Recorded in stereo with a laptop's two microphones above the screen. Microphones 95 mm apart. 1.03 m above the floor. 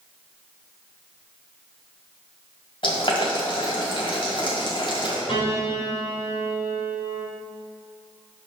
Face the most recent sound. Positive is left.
turn(degrees=85)